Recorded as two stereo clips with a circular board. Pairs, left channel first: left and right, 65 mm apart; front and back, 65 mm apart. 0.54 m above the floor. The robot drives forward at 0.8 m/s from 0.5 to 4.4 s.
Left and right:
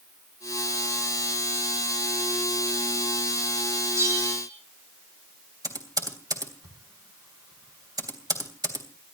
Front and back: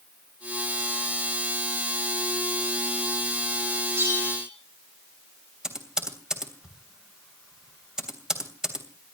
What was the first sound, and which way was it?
A bell, 130° right.